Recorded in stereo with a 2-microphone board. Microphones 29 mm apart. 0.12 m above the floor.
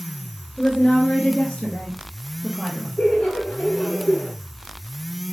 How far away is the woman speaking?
About 2 m.